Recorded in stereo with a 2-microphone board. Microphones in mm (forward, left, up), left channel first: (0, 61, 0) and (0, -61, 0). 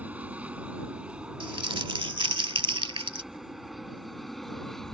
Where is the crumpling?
50° right (ahead or behind).